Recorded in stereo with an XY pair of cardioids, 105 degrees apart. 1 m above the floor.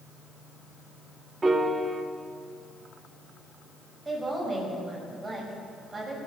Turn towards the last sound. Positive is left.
turn(degrees=-15)